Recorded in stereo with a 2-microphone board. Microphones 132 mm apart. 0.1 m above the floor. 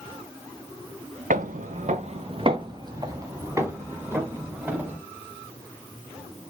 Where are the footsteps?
85° right, 0.9 m; by 5.0 s 10° right (ahead or behind), 3.5 m.